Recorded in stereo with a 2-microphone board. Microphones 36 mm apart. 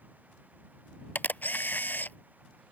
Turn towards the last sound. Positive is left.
turn(degrees=70)  # may be behind; listen again after turning